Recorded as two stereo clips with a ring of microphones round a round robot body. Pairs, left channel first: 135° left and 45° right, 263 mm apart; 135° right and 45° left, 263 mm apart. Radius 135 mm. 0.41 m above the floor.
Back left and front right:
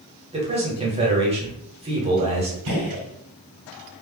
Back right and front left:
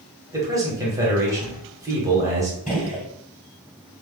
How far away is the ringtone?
I don't hear a ringtone.